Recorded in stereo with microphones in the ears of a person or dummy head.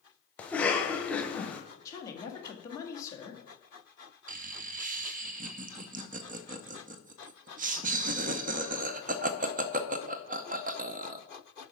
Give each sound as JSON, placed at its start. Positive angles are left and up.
{"t": 0.4, "sound": "a cough", "side_deg": 10, "distance_m": 0.9}
{"t": 1.9, "sound": "a woman speaking", "side_deg": 15, "distance_m": 1.4}
{"t": 4.3, "sound": "laughter", "side_deg": -35, "distance_m": 0.6}